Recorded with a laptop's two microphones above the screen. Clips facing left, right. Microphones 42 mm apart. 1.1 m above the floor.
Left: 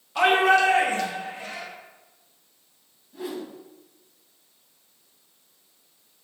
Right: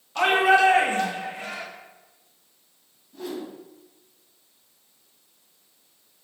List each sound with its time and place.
0.1 s a shout: 5° left (ahead or behind), 1.6 m; by 1.6 s 70° right (ahead or behind), 2 m
3.1 s a whoosh: 15° left (ahead or behind), 1.8 m